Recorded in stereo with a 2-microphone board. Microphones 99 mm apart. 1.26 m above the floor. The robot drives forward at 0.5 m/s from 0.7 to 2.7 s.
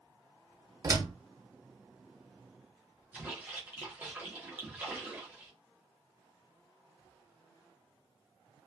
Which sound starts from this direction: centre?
A splash, at 3.1 s.